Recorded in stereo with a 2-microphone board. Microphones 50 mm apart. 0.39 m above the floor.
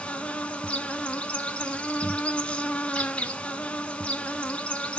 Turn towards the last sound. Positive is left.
turn(degrees=25)  # may be behind; listen again after turning